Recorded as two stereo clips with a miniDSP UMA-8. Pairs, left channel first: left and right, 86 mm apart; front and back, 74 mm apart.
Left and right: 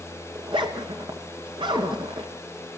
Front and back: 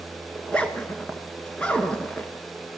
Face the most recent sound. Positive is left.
turn(degrees=-75)